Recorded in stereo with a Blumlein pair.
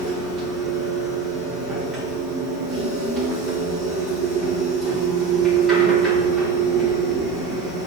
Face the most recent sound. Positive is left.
turn(degrees=-10)